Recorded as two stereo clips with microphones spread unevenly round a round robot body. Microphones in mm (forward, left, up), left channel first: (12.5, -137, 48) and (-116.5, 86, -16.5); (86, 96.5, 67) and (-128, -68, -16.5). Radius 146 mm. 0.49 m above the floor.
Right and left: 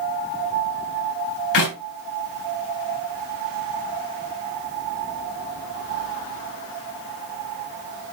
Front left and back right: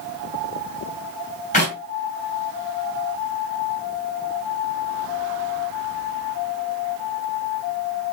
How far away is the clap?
About 3 m.